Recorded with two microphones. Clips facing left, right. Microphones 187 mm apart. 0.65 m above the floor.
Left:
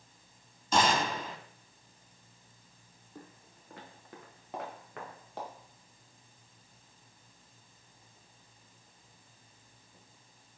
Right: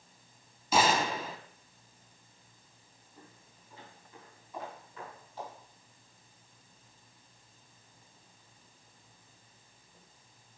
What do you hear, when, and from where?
0.7 s a gunshot: 10° right (ahead or behind), 1.8 m
3.1 s footsteps: 65° left (ahead or behind), 3 m; by 5.5 s 70° left (ahead or behind), 5 m